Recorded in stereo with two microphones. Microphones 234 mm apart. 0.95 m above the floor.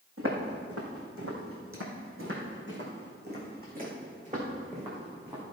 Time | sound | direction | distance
0.2 | footsteps | 70° right (ahead or behind) | 3.5 m